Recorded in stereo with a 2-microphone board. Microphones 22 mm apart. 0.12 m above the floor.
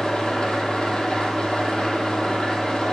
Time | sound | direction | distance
0.0 | an engine running | 50° left (ahead or behind) | 0.9 m